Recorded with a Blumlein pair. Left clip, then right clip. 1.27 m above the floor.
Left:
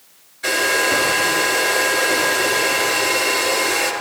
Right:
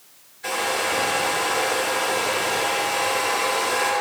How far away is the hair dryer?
About 5.5 m.